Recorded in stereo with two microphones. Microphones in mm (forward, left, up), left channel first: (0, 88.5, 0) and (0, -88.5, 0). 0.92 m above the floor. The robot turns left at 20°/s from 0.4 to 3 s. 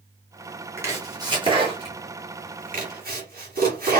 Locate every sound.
0.8 s chopping: 15° right (ahead or behind), 2.5 m; by 4.0 s 55° right (ahead or behind), 2.5 m